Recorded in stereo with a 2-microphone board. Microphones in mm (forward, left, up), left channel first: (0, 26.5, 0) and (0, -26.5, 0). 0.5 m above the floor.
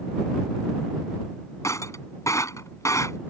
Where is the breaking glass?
75° left (ahead or behind).